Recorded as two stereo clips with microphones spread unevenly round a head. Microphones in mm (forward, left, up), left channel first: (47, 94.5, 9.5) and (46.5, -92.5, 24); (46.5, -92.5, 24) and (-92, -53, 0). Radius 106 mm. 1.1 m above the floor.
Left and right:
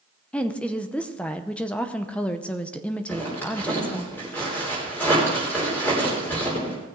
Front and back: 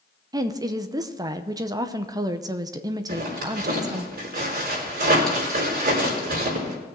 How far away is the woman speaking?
About 0.7 m.